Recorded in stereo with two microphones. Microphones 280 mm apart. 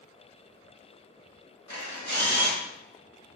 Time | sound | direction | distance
1.7 | a camera shutter | 80° left | 2.5 m